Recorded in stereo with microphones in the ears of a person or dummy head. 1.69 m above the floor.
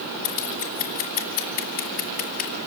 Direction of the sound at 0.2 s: 50° left (ahead or behind).